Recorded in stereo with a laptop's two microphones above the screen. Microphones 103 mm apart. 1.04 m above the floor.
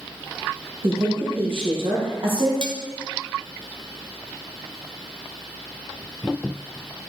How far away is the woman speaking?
About 1.2 m.